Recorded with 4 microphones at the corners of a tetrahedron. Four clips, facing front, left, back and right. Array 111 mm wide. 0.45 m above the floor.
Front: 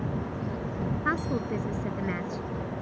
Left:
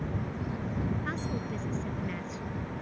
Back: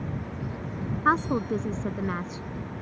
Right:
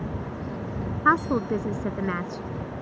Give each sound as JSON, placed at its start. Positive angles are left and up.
{"t": 1.1, "sound": "a woman speaking", "azimuth_deg": -115}